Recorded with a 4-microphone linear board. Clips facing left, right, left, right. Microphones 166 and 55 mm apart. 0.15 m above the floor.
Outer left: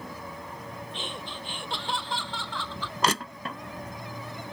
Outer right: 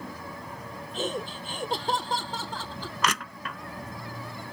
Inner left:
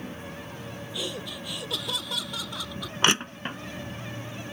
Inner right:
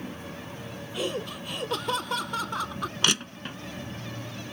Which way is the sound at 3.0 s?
30° left (ahead or behind).